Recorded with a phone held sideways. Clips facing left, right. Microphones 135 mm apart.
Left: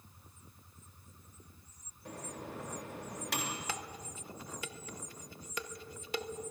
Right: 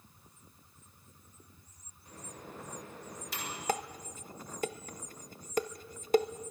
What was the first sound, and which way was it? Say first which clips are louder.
A microwave: left 4 dB; 75° left (ahead or behind).